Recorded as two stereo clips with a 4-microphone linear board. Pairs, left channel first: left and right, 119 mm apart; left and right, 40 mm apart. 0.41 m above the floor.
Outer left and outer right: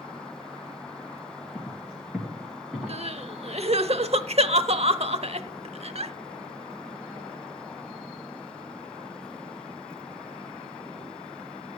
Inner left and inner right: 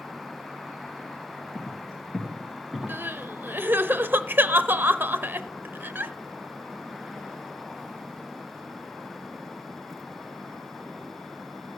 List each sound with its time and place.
1.6 s footsteps: 5° right (ahead or behind), 3.5 m; by 3.0 s 10° right (ahead or behind), 4 m
2.9 s crying: 60° right (ahead or behind), 0.7 m